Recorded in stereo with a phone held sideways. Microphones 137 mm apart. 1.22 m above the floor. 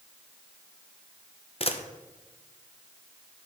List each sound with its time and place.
1.6 s a camera shutter: 45° left (ahead or behind), 0.9 m